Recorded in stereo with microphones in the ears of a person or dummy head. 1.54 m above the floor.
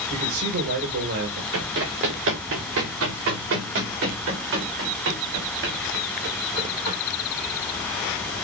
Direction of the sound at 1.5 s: 75° right (ahead or behind).